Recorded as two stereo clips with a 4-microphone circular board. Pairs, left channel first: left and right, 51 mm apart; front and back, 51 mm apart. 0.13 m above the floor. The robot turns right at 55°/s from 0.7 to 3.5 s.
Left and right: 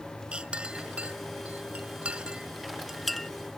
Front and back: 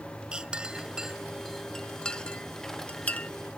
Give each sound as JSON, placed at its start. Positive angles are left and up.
{"t": 0.3, "sound": "a clink", "azimuth_deg": -130}